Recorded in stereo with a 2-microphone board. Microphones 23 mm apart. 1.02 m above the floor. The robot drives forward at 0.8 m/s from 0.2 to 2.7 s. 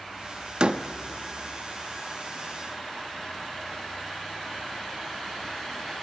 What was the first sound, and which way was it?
A door slam, 45° right (ahead or behind).